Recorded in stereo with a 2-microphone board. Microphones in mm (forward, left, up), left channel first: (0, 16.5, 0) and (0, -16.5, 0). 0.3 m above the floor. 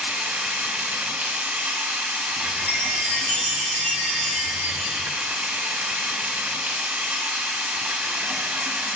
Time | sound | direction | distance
0.0 | running water | 70° right (ahead or behind) | 0.9 m
2.4 | a chime | 60° left (ahead or behind) | 2 m